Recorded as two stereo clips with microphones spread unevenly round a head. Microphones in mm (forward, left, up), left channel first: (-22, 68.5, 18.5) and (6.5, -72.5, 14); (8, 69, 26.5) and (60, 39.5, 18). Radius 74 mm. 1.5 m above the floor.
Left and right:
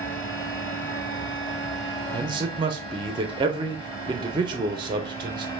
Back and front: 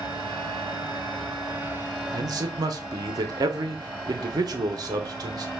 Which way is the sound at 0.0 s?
45° left.